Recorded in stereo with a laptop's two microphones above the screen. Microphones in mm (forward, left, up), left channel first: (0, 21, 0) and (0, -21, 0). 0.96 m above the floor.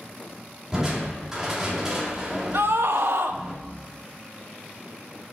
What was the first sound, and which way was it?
Crushing, 10° right (ahead or behind).